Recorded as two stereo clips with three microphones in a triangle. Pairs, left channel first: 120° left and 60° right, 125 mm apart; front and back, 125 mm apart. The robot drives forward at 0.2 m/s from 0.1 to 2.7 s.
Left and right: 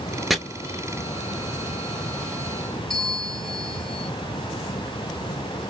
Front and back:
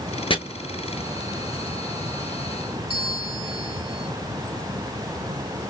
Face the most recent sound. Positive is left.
turn(degrees=-155)